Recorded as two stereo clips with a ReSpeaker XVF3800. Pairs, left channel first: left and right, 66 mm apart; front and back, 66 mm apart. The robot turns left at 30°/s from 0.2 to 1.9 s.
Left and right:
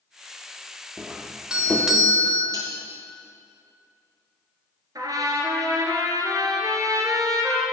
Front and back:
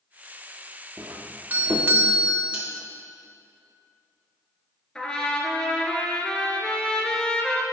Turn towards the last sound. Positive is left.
turn(degrees=-75)